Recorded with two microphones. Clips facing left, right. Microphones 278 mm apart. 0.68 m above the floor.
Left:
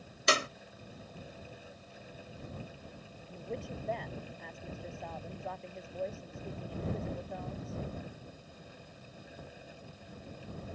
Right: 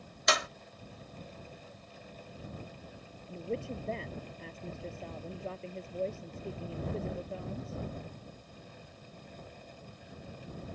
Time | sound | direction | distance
0.3 | a clap | 35° left (ahead or behind) | ?
3.3 | a woman speaking | 30° right (ahead or behind) | ?